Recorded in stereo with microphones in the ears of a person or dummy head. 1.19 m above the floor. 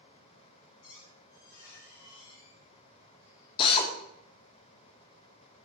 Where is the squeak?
50° left (ahead or behind), 2.0 m.